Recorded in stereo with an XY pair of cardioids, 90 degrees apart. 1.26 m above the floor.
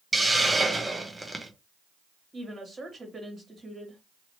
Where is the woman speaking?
30° right, 2 m.